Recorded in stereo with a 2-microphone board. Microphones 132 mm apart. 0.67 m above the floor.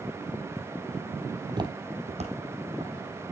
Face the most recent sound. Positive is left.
turn(degrees=-60)  # may be behind; listen again after turning